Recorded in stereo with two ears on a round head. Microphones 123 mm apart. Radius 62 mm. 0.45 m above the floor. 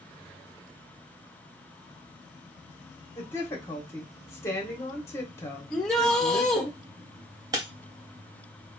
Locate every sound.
3.1 s a woman speaking: 20° left (ahead or behind), 1.1 m
5.7 s a shout: 5° left (ahead or behind), 1.1 m
7.5 s breaking glass: 25° right (ahead or behind), 0.8 m